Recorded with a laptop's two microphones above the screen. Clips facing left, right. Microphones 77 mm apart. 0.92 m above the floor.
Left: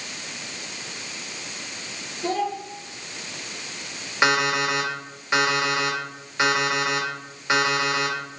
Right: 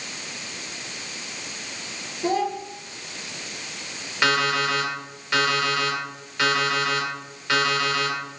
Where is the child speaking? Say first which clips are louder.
Right 2 dB; 15° right (ahead or behind), 1.6 m.